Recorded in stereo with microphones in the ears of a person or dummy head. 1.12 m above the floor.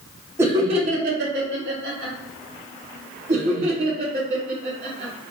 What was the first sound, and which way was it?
Laughter, 10° right (ahead or behind).